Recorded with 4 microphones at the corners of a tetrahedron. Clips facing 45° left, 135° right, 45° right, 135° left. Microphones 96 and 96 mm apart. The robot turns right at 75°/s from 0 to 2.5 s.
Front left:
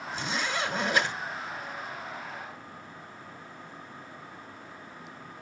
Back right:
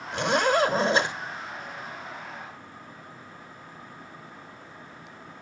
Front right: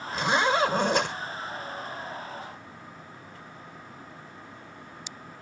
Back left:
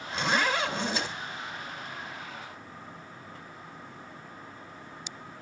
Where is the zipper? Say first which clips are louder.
Back right 10 dB, front right 3 dB; 135° right, 3.5 m; by 1.1 s 60° right, 3.5 m.